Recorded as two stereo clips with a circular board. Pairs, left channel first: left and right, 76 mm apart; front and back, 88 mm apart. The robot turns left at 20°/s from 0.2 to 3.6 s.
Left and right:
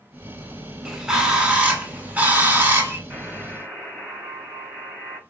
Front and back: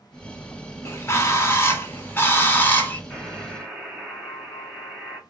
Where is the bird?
15° right, 0.7 m; by 3.0 s 55° right, 0.7 m.